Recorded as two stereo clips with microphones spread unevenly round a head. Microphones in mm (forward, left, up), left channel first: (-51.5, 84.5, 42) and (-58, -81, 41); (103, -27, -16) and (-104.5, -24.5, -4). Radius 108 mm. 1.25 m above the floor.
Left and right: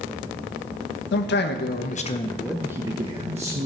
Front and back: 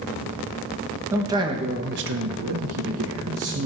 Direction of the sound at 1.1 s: 100° left.